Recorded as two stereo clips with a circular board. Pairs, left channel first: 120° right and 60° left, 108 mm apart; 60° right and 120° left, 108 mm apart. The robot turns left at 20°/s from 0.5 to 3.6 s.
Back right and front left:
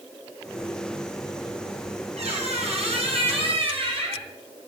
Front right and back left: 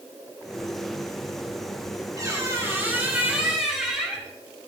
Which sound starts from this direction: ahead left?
A squeak, at 2.2 s.